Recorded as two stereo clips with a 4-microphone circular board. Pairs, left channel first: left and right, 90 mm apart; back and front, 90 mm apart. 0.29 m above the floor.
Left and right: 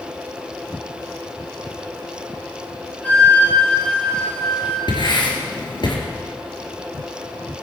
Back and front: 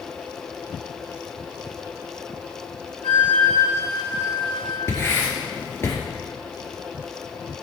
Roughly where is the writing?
Behind left.